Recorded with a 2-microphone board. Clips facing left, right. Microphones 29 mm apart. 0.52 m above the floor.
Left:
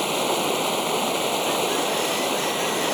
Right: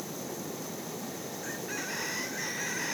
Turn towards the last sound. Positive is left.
turn(degrees=80)